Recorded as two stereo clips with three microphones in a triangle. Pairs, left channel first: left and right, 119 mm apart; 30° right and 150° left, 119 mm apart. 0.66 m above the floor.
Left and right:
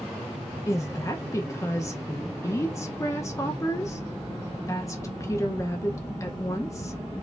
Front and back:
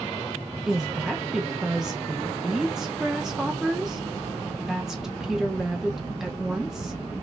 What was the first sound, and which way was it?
A woman speaking, 70° left.